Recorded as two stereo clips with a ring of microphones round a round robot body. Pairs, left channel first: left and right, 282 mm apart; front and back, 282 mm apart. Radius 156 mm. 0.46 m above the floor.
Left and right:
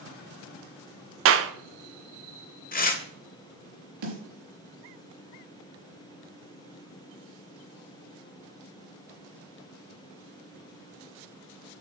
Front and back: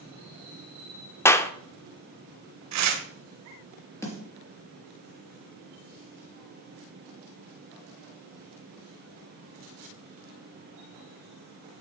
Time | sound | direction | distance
1.2 | a clap | 80° right | 0.7 m
2.7 | tearing paper | 150° left | 1.4 m
4.0 | a snare drum | 80° right | 3.5 m